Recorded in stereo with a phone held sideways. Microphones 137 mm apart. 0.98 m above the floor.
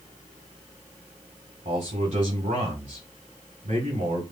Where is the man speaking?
65° right (ahead or behind), 2 m.